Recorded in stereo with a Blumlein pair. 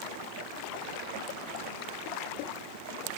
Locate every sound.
Only background noise.